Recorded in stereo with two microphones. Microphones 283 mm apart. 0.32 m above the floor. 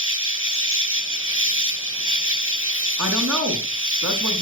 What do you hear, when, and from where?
0.0 s an insect: 45° right (ahead or behind), 0.9 m
3.0 s a woman speaking: 75° right (ahead or behind), 3.5 m